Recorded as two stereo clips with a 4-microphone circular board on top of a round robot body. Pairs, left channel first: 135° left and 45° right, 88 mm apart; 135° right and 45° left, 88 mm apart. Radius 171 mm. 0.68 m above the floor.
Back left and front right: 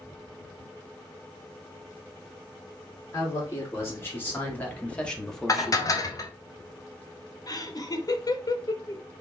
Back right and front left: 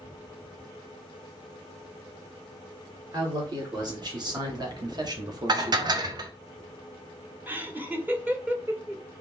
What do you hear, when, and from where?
3.1 s a man speaking: 80° left, 2.5 m; by 6.2 s 15° left, 1.2 m
5.5 s dishes clattering: 85° left, 0.8 m
7.5 s laughter: 110° left, 1.1 m